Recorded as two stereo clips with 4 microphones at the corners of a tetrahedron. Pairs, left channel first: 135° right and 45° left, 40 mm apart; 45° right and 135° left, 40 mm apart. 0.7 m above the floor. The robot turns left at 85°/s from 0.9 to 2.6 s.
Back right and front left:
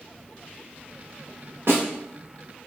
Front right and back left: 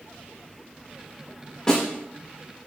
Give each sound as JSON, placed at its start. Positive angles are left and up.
{"t": 1.7, "sound": "a snare drum", "azimuth_deg": 30, "distance_m": 0.9}